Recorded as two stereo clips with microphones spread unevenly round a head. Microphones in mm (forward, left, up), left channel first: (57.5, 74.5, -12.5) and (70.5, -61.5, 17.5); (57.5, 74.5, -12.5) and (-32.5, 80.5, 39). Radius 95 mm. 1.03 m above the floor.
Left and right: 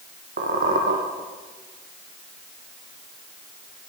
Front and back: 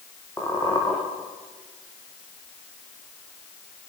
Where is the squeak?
85° right, 5 m.